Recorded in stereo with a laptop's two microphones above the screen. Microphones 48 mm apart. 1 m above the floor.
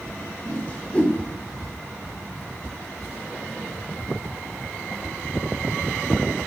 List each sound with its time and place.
0.5 s a whoosh: 30° left (ahead or behind), 1.4 m